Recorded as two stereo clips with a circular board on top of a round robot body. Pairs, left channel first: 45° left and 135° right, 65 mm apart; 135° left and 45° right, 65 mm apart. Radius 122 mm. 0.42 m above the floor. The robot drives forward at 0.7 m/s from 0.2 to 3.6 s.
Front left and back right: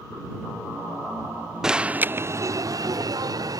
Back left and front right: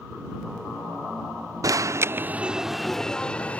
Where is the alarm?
55° right; by 3.6 s 155° right.